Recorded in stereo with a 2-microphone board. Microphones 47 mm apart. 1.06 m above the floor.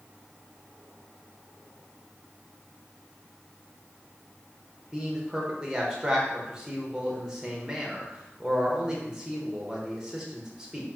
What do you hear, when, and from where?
4.9 s a man speaking: 15° right (ahead or behind), 0.8 m